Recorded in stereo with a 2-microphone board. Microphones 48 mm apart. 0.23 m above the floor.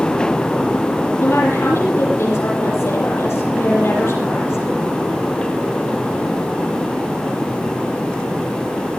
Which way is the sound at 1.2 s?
70° left (ahead or behind).